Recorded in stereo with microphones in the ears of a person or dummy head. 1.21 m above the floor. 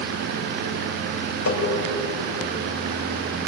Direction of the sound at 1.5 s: 80° left.